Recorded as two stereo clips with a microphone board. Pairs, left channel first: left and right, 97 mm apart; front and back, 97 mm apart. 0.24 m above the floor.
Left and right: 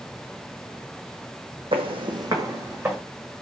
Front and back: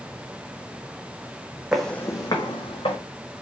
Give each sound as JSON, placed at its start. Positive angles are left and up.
{"t": 1.7, "sound": "footsteps", "azimuth_deg": -100, "distance_m": 0.8}